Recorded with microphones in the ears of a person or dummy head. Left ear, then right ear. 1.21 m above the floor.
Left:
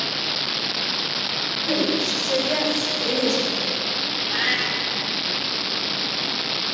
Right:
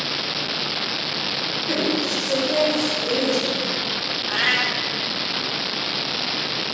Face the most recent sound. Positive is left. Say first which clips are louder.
# right 3 dB
turn(degrees=-15)  # may be behind; listen again after turning